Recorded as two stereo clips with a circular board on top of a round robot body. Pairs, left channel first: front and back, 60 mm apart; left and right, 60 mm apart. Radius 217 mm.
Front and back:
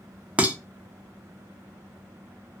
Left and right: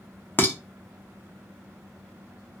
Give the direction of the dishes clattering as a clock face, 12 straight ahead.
8 o'clock.